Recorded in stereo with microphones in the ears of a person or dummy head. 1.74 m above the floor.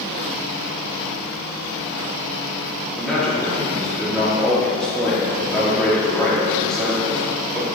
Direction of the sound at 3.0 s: 5° left (ahead or behind).